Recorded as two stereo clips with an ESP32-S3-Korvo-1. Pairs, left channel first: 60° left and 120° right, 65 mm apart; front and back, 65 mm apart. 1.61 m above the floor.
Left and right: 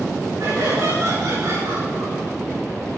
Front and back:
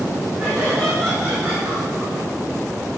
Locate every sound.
0.4 s laughter: 120° right, 8 m